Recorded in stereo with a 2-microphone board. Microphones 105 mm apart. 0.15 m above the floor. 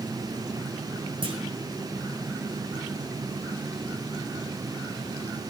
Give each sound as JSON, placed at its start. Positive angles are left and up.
{"t": 1.2, "sound": "a clunk", "side_deg": -50, "distance_m": 2.5}